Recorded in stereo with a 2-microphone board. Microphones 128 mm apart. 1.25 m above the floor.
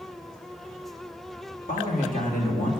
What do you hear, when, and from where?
1.7 s a man speaking: 85° left, 2.5 m